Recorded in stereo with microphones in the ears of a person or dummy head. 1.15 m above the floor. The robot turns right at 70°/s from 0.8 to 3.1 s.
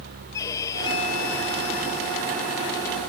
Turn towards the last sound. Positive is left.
turn(degrees=-175)